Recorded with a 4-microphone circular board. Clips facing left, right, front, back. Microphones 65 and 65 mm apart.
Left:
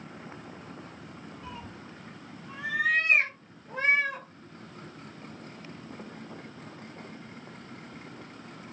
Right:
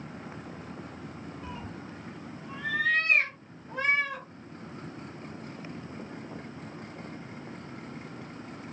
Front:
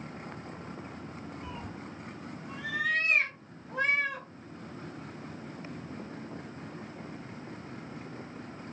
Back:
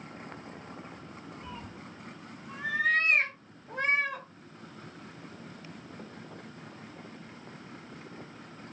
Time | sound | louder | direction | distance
1.4 | a cat meowing | right 1 dB, front 2 dB | 55° right | 0.6 m